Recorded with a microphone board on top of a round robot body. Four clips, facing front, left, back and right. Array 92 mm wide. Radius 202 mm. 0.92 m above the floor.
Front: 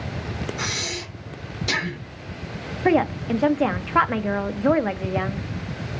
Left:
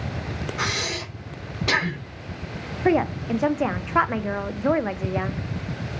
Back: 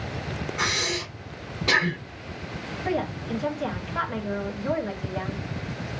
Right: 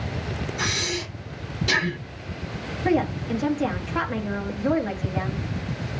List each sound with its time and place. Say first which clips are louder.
0.6 s breathing: left 1 dB, back 2 dB; 125° left, 3.5 m
2.9 s a woman speaking: left 2 dB, front 9 dB; 35° left, 0.9 m